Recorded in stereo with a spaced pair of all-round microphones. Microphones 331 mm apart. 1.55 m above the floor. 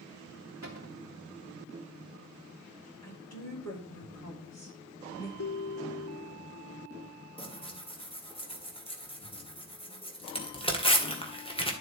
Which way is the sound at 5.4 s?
50° left (ahead or behind).